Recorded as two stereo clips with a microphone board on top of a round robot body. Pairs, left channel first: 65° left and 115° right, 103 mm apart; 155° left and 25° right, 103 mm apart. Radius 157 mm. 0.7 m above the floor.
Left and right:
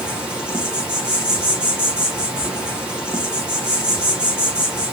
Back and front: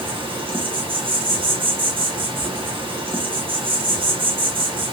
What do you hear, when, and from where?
0.0 s an insect: 35° right, 1.2 m